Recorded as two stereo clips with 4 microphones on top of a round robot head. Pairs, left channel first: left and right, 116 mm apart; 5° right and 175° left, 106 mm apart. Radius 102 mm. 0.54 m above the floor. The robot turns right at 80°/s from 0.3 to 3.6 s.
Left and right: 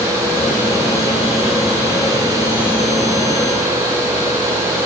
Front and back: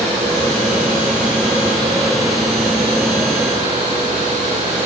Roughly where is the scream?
I don't hear a scream.